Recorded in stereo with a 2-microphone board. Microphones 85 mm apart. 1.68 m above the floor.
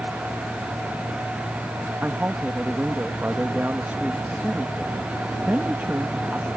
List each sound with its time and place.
2.0 s a woman speaking: 25° right (ahead or behind)